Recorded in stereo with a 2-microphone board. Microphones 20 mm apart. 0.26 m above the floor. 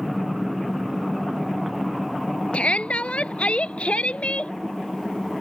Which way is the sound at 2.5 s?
65° left (ahead or behind).